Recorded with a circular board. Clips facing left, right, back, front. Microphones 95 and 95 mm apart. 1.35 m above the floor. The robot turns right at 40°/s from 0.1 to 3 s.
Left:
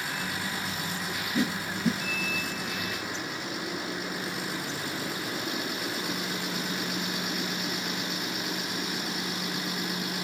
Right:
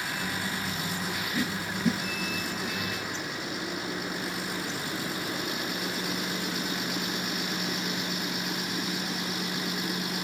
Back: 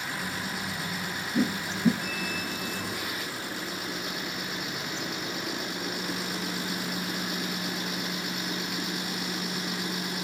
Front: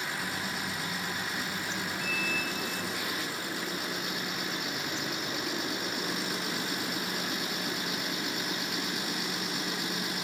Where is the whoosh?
160° left; by 2.0 s 175° right.